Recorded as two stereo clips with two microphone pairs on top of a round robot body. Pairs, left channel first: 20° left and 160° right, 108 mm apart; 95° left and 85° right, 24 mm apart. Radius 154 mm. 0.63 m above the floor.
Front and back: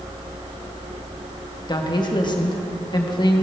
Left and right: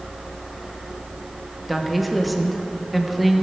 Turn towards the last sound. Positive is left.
turn(degrees=-15)